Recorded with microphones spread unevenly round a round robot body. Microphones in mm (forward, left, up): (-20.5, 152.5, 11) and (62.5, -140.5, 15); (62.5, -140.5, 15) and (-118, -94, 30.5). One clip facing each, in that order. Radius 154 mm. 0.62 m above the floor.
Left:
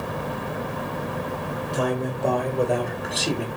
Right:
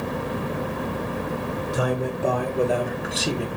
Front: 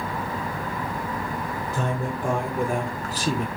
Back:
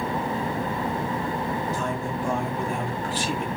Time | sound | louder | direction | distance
1.7 | a man speaking | left 1 dB, front 1 dB | 10° left | 2.5 m